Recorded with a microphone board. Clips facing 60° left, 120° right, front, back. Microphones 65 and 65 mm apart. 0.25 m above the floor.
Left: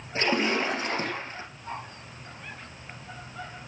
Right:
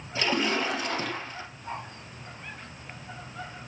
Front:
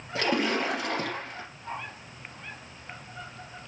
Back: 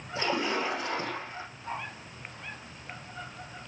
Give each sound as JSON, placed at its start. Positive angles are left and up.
{"t": 0.1, "sound": "a splash", "azimuth_deg": 5, "distance_m": 2.5}